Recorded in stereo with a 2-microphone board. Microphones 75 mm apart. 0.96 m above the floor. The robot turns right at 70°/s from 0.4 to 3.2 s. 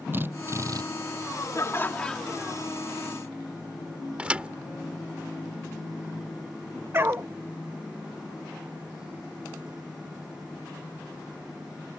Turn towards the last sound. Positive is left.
turn(degrees=-35)  # may be behind; listen again after turning